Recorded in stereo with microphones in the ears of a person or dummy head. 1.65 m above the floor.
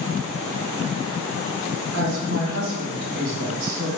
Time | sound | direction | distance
1.9 | a woman speaking | 60° right (ahead or behind) | 2 m